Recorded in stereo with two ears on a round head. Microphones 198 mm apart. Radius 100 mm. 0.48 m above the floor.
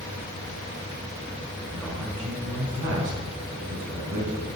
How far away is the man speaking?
About 4 m.